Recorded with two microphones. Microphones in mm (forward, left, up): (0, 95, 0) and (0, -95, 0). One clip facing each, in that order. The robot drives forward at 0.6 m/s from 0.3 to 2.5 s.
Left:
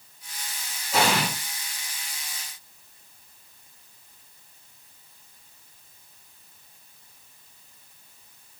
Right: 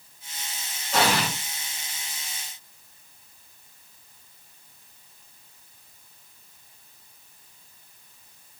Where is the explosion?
10° left (ahead or behind), 1.4 m; by 1.3 s 15° left (ahead or behind), 1.2 m.